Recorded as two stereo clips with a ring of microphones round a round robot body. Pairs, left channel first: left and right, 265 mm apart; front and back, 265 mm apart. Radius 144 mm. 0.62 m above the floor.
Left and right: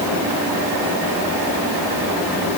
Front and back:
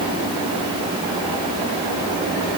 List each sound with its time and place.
Only background noise.